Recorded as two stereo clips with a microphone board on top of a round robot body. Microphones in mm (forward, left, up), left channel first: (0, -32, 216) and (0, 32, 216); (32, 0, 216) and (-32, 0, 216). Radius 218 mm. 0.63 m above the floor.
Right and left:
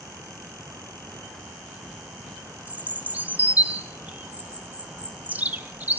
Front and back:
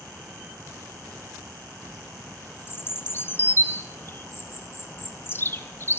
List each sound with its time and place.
2.7 s a bird: 35° left, 0.7 m